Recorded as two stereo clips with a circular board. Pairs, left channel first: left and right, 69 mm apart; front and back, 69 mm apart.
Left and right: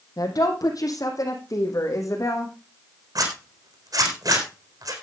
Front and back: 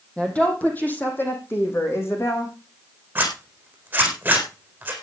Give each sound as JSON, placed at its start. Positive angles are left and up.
{"t": 0.2, "sound": "a woman speaking", "azimuth_deg": 75, "distance_m": 4.0}
{"t": 3.1, "sound": "a zipper", "azimuth_deg": -115, "distance_m": 4.0}